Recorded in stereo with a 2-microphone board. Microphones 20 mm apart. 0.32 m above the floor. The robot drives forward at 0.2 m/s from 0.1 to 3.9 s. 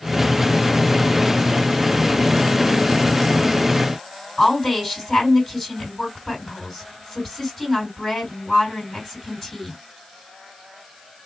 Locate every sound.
4.4 s a woman speaking: 10° left (ahead or behind), 2.5 m